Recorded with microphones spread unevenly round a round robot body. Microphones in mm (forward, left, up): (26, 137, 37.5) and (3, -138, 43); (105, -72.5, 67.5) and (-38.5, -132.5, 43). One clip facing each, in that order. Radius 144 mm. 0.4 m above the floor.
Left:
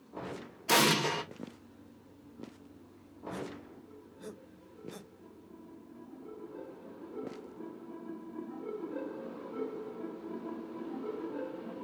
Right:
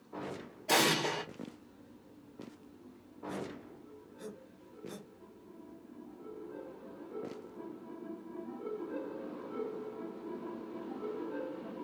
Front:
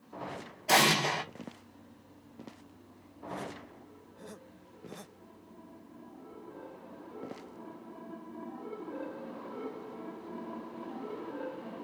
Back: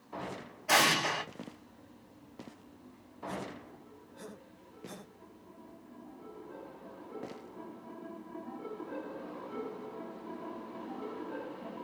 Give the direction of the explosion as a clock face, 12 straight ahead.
10 o'clock.